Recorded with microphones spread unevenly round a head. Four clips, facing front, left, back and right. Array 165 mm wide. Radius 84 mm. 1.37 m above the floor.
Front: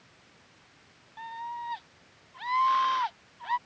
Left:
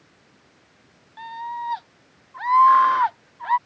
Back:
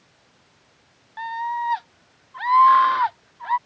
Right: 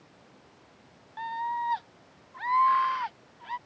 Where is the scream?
165° left; by 3.6 s 110° left.